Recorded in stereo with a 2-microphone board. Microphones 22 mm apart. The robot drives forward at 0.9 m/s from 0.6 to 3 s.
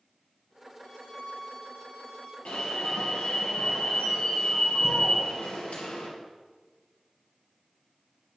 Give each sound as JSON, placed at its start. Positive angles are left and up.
{"t": 0.8, "sound": "a violin", "side_deg": 50, "distance_m": 4.5}
{"t": 2.5, "sound": "an alarm", "side_deg": 75, "distance_m": 4.0}